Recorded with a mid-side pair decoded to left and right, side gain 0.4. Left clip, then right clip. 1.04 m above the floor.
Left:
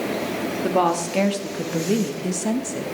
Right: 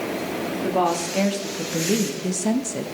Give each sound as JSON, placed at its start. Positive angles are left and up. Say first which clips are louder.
{"t": 0.6, "sound": "a woman speaking", "louder": "left 2 dB", "azimuth_deg": 30, "distance_m": 2.5}